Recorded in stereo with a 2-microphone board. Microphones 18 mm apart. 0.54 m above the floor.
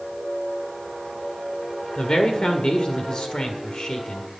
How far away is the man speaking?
About 1.7 m.